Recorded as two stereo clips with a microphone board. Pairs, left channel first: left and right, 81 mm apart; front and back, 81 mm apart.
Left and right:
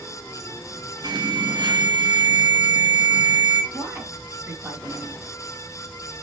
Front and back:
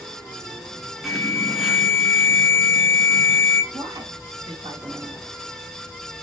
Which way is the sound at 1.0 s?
90° right.